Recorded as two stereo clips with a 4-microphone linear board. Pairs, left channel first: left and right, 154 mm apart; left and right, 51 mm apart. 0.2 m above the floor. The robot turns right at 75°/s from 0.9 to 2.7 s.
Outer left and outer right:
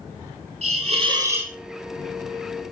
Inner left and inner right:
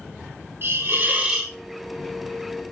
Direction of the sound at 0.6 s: 50° right.